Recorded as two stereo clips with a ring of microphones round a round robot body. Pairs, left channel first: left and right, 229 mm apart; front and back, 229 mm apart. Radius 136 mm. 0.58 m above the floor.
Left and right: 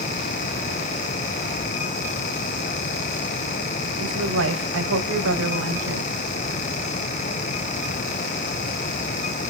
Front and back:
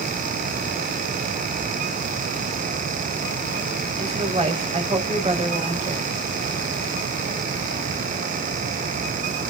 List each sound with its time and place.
4.0 s a woman speaking: 120° right, 4 m